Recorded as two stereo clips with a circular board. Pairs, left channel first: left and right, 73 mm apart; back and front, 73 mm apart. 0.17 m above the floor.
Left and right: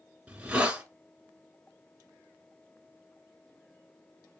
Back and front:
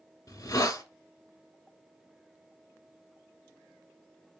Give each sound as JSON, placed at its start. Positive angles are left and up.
{"t": 0.3, "sound": "a hiss", "azimuth_deg": -160, "distance_m": 1.1}